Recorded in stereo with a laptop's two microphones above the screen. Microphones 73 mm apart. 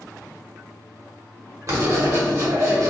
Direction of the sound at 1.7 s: 45° right (ahead or behind).